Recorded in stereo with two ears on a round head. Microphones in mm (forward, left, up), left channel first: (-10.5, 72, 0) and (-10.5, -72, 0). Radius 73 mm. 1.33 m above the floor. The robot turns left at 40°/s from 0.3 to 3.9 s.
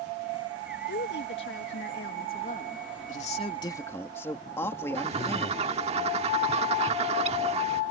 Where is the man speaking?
45° left; by 5.7 s 15° left.